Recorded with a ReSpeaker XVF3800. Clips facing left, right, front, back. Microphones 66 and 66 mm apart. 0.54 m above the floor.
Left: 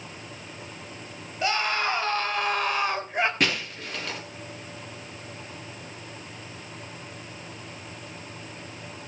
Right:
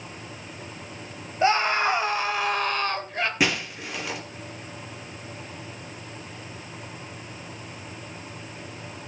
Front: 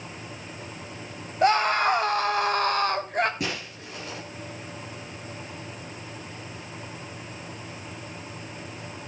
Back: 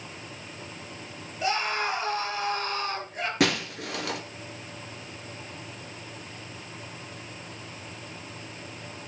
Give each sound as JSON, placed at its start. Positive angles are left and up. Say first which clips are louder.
{"t": 1.4, "sound": "a scream", "louder": "right 5 dB, front 7 dB", "azimuth_deg": -30, "distance_m": 3.5}
{"t": 3.4, "sound": "breaking glass", "louder": "right 2 dB, back 7 dB", "azimuth_deg": -170, "distance_m": 2.5}